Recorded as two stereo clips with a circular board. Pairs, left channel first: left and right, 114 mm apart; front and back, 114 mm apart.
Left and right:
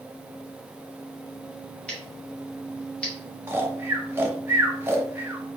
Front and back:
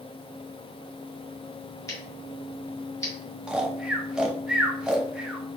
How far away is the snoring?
About 0.5 m.